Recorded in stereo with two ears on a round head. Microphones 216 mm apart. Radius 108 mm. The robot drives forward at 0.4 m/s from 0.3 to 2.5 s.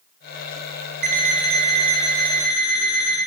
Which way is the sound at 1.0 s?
35° right (ahead or behind).